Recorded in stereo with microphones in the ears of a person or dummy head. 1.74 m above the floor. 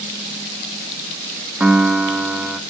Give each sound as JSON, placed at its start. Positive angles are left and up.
{"t": 1.6, "sound": "a piano", "side_deg": 0, "distance_m": 0.7}